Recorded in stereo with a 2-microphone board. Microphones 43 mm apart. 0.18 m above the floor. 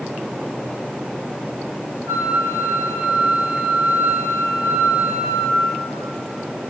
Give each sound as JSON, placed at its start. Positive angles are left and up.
{"t": 2.1, "sound": "a flute", "side_deg": -80, "distance_m": 1.4}